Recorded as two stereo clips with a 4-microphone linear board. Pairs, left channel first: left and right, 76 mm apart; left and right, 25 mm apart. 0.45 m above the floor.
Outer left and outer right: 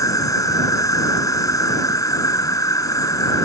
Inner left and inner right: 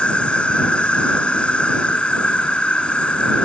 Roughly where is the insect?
Left.